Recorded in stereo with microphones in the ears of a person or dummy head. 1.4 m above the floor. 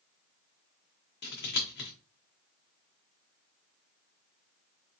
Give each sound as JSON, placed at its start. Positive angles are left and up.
{"t": 1.2, "sound": "scissors", "side_deg": 50, "distance_m": 1.0}